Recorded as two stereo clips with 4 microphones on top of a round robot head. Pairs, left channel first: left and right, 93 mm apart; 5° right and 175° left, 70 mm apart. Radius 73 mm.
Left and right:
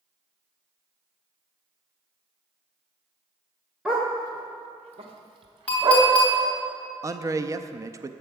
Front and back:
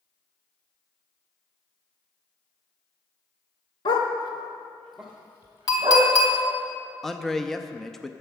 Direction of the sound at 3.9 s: 5° right.